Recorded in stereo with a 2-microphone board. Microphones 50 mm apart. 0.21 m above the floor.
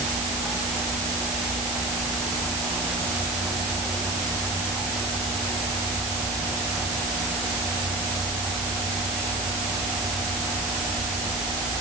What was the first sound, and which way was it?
Only background noise.